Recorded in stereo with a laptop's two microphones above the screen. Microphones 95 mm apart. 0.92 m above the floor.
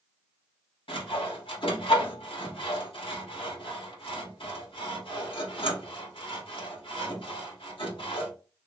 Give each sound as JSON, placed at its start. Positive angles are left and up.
{"t": 0.9, "sound": "sawing", "side_deg": 75, "distance_m": 1.8}